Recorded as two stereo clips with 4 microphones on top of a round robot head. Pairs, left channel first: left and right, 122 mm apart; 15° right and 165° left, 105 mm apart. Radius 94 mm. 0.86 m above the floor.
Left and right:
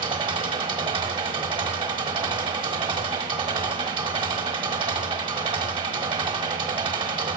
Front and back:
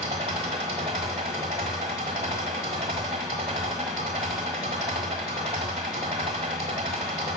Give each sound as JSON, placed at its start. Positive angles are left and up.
{"t": 0.0, "sound": "an engine running", "azimuth_deg": -135, "distance_m": 1.1}